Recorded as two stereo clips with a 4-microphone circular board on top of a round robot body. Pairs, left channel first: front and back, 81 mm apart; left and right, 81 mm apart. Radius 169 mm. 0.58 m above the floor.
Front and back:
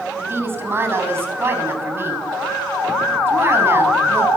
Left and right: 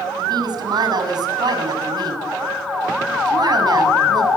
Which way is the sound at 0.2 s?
120° right.